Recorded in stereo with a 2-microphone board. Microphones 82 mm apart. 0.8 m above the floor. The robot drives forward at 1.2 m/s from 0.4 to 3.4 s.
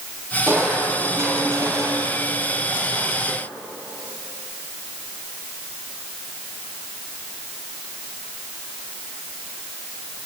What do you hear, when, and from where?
0.5 s crushing: 25° right (ahead or behind), 6.5 m; by 3.4 s 50° right (ahead or behind), 3.5 m